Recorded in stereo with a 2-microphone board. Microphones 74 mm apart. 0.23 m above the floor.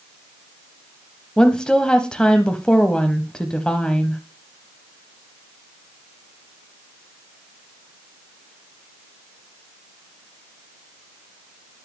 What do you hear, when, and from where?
1.4 s a woman speaking: 10° left (ahead or behind), 0.9 m